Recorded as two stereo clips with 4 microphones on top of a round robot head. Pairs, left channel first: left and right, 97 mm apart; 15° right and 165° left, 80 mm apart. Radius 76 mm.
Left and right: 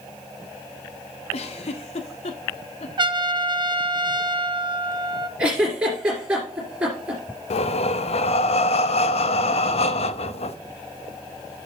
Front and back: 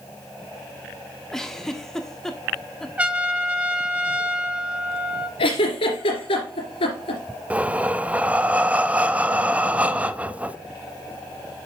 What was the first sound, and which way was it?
A giggle, 75° left.